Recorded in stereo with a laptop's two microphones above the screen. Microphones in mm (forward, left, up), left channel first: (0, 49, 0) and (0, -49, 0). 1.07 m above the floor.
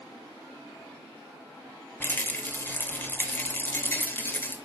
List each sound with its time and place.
2.0 s a rattle: 20° left (ahead or behind), 3 m